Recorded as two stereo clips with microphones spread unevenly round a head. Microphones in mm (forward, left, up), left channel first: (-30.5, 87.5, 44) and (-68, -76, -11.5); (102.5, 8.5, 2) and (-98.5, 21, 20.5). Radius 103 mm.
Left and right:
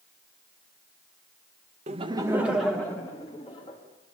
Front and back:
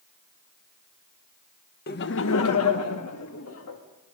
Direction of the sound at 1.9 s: 50° right.